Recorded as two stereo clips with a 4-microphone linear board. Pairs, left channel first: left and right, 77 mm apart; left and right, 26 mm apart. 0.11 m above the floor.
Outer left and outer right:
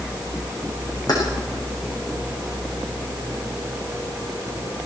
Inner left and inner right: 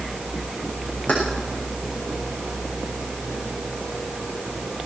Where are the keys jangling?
55° left (ahead or behind), 6.5 m.